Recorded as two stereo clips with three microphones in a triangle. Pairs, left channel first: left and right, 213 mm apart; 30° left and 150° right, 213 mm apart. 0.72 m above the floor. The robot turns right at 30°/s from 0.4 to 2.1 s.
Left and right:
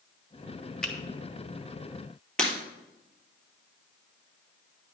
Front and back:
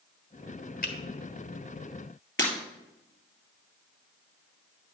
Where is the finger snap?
5° left, 1.3 m; by 0.9 s 10° left, 1.3 m.